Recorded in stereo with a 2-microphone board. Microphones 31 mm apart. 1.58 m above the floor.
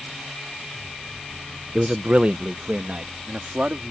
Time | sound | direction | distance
1.8 | a man speaking | 30° right (ahead or behind) | ?